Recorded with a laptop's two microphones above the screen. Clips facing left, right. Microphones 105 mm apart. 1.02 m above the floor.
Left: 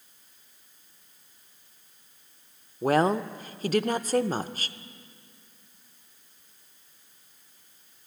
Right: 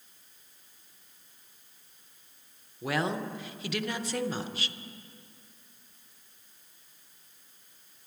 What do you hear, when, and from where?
2.8 s a woman speaking: 40° left (ahead or behind), 0.6 m